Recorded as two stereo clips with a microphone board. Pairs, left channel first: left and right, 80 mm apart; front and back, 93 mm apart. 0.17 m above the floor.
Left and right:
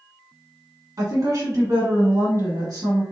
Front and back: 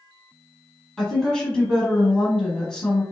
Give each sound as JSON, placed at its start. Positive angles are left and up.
{"t": 1.0, "sound": "a woman speaking", "azimuth_deg": -75, "distance_m": 1.3}